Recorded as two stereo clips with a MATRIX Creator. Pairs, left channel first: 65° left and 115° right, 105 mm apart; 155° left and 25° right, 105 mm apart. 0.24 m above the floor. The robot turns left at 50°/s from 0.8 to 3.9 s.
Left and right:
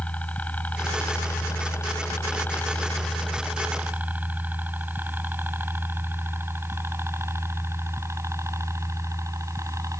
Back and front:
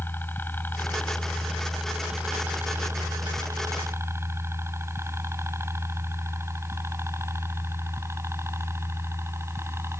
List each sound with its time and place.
0.0 s a helicopter: 125° left; by 10.0 s 75° right